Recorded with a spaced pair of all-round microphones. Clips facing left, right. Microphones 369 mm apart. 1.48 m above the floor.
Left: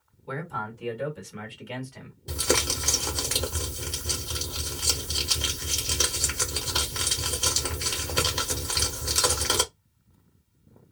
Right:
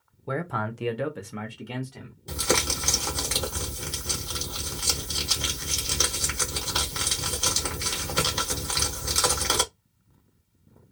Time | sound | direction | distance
0.3 | a man speaking | 60° right (ahead or behind) | 0.7 m
2.3 | crumpling | 20° left (ahead or behind) | 1.2 m